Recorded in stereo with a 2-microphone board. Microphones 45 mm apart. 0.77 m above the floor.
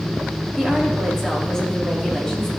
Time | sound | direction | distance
0.6 | a woman speaking | 10° left (ahead or behind) | 1.6 m